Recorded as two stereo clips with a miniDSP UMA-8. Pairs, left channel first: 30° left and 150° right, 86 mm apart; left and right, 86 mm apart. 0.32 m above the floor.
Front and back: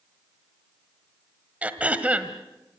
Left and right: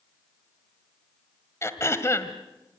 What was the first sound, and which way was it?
Throat clearing, 140° left.